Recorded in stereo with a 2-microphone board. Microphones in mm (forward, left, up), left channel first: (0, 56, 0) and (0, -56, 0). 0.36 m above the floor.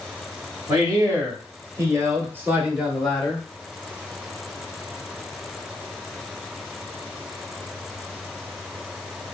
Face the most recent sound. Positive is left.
turn(degrees=0)  # may be behind; listen again after turning